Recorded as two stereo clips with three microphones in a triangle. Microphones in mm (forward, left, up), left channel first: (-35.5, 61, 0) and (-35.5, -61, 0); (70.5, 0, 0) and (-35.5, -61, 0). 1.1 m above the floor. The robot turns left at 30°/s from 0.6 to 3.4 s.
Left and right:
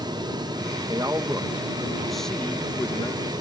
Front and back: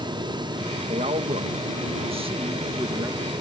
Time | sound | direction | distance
0.9 | a man speaking | 145° right | ?